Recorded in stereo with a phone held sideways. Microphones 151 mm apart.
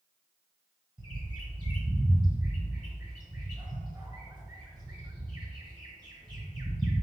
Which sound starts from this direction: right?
A bird, at 1.0 s.